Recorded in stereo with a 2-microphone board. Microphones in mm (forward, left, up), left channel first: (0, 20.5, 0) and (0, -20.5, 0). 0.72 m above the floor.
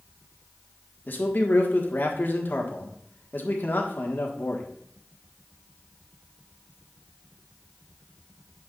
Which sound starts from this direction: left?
A man speaking, at 1.1 s.